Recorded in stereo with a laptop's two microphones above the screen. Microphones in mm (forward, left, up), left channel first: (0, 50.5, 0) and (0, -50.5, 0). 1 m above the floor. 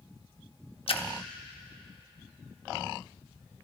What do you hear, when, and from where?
0.9 s a splash: 65° left (ahead or behind), 0.8 m